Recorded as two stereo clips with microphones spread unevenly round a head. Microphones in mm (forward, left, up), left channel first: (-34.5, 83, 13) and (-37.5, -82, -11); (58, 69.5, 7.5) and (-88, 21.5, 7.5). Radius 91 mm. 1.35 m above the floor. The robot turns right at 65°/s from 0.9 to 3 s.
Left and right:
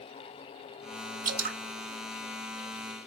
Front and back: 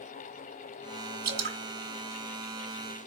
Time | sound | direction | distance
1.2 | dripping | 135° right | 1.9 m